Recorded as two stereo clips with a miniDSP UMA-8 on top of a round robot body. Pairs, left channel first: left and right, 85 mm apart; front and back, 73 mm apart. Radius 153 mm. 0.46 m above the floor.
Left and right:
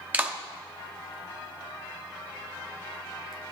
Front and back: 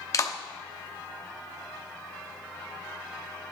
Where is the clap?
25° right, 1.0 m.